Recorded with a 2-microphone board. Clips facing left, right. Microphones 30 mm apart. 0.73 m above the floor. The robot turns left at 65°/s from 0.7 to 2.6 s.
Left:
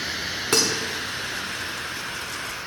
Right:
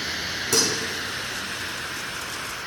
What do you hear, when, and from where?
0.5 s dishes clattering: 55° left (ahead or behind), 1.3 m